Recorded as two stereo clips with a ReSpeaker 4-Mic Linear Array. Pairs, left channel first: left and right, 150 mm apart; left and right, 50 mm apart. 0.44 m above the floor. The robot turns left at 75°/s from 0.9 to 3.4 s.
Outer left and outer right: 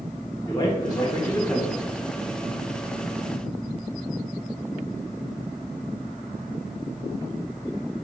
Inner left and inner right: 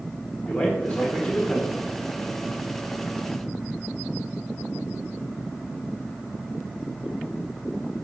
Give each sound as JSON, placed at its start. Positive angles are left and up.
{"t": 0.5, "sound": "a man speaking", "side_deg": 25, "distance_m": 1.0}